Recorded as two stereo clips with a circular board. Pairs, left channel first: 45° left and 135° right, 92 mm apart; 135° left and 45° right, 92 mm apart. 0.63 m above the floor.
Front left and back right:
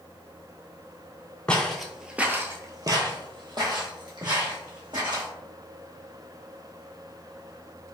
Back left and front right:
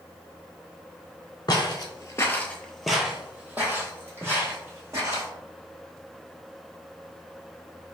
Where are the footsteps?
120° left, 0.9 m; by 5.3 s 100° right, 2.5 m.